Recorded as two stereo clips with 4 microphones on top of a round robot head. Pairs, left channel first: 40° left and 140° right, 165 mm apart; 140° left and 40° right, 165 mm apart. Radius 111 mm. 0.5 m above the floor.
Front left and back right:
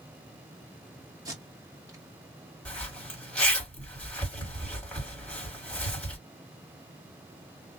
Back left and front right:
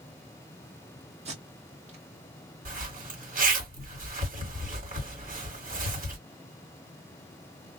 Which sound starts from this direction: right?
Tape being pulled, at 1.2 s.